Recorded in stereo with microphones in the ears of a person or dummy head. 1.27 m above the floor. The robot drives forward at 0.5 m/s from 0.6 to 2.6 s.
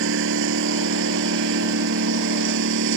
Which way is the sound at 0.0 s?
75° right (ahead or behind).